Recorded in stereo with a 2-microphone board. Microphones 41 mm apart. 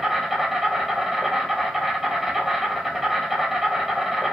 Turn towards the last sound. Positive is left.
turn(degrees=-5)  # may be behind; listen again after turning